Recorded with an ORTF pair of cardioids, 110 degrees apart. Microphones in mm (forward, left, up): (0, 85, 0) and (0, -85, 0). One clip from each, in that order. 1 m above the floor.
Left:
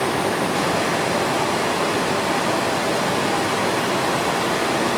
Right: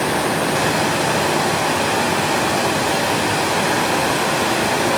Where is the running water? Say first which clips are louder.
Right 2 dB; 70° right, 3 m.